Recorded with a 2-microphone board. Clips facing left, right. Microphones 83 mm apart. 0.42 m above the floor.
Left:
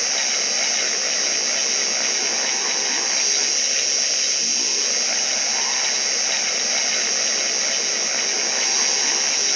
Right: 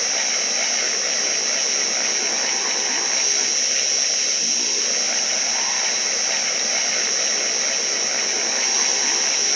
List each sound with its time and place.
0.0 s an insect: 45° right (ahead or behind), 3.5 m